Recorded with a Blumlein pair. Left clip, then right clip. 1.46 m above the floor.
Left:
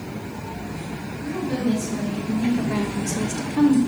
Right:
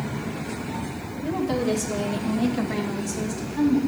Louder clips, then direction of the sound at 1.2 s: Right 2 dB; 45° right.